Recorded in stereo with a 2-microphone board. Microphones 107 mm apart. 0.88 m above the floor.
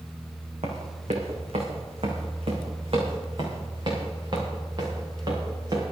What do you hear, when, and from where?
0.6 s running footsteps: 75° right (ahead or behind), 3.5 m; by 5.8 s 40° right (ahead or behind), 7.5 m